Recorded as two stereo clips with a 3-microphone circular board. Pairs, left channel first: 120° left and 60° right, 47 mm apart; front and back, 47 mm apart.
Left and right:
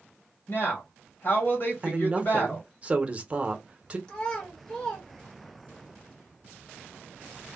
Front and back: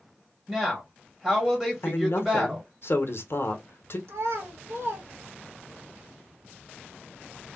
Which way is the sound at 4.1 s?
165° right.